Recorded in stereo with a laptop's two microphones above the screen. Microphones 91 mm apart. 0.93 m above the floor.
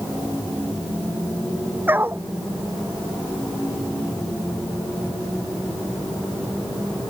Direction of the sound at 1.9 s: 20° right (ahead or behind).